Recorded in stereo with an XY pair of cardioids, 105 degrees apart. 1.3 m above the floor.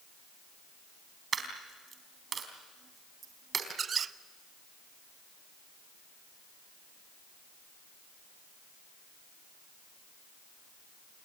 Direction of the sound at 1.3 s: 45° right.